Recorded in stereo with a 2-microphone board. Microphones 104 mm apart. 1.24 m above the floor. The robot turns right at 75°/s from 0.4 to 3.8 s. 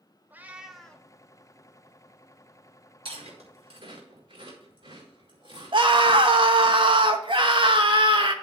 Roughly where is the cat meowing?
Ahead right.